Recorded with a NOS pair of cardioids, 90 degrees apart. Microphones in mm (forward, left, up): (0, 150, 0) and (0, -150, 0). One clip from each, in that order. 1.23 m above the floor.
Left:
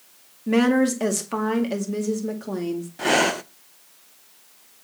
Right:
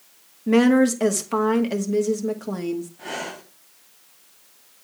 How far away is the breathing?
About 0.6 m.